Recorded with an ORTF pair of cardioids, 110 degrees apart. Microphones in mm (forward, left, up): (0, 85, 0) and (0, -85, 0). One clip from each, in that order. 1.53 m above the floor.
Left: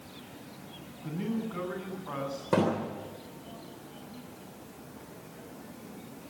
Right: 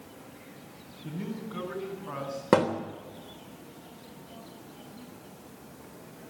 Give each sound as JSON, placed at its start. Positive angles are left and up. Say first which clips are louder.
{"t": 1.0, "sound": "a man speaking", "louder": "left 3 dB", "azimuth_deg": 0, "distance_m": 9.0}
{"t": 2.5, "sound": "a thud", "louder": "right 4 dB", "azimuth_deg": -65, "distance_m": 3.0}